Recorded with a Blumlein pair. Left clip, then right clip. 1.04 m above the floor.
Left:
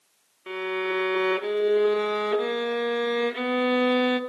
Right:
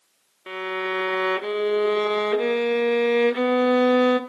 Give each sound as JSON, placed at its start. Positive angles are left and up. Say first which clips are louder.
{"t": 0.5, "sound": "a violin", "louder": "right 1 dB", "azimuth_deg": -10, "distance_m": 0.6}